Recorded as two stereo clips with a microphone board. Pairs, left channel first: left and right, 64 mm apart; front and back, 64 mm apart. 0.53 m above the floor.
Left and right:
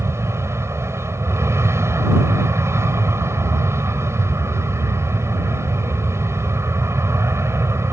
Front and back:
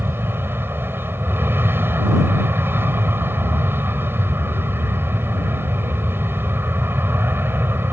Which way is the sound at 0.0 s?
130° right.